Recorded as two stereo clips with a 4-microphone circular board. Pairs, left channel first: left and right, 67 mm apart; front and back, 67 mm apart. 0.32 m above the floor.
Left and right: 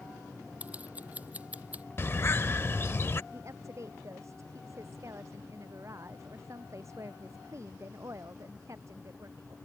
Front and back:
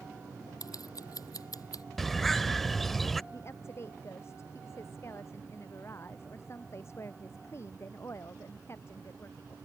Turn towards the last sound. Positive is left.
turn(degrees=-50)